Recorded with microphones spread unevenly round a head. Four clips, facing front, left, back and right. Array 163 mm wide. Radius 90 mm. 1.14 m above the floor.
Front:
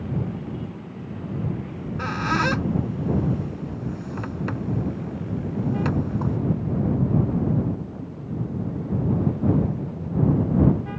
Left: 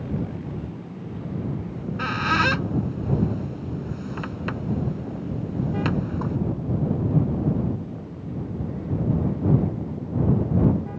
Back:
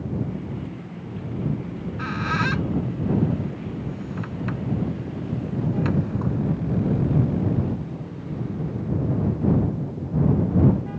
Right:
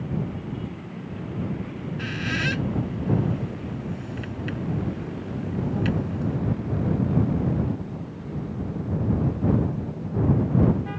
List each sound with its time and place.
1.7 s a squeak: 35° left